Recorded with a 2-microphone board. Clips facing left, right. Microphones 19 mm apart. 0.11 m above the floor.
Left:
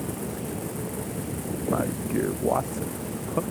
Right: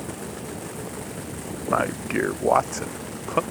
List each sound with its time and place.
1.7 s a man speaking: 70° right (ahead or behind)